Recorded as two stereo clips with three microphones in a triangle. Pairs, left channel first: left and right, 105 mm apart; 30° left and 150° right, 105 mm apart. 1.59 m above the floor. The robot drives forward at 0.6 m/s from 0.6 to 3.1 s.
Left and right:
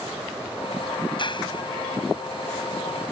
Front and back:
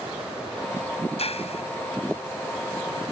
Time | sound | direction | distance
1.2 | a clap | 50° left | ?